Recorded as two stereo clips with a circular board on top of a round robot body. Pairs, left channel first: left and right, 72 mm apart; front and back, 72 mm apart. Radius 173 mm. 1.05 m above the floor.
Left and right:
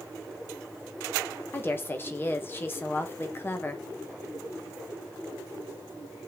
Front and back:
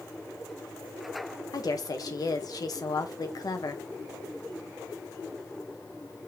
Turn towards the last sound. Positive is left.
turn(degrees=30)